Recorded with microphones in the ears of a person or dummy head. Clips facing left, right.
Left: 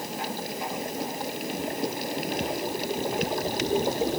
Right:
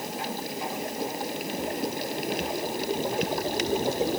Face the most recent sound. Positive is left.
No sound to turn to.